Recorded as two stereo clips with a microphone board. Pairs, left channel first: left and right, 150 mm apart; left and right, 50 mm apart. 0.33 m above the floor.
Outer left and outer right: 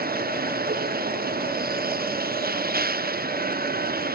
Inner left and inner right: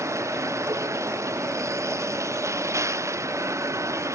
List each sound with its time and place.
0.0 s a vehicle: 85° right